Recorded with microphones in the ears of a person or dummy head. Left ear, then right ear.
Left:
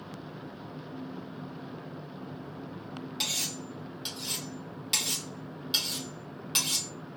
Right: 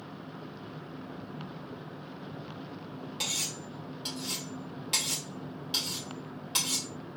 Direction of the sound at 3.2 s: 10° left (ahead or behind).